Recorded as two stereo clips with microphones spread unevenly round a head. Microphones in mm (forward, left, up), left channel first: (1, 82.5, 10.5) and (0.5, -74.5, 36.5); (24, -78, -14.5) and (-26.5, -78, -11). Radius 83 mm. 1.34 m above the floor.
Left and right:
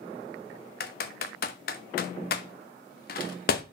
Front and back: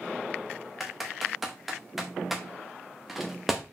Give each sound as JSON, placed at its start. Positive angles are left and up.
{"t": 0.8, "sound": "typing on a keyboard", "azimuth_deg": 100, "distance_m": 0.7}